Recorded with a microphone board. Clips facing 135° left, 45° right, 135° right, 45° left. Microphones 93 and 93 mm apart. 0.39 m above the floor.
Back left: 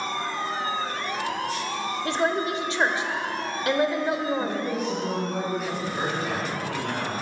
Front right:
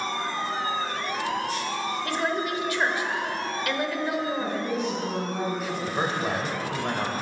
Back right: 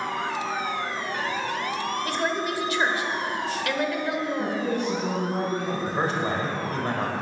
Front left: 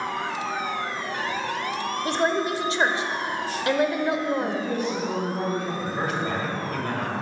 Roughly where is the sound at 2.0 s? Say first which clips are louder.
Back left 4 dB, front left 6 dB; left.